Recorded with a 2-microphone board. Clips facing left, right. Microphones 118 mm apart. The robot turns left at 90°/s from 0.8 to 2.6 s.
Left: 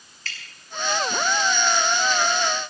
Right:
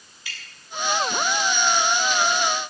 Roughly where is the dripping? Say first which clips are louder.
Left 2 dB; centre.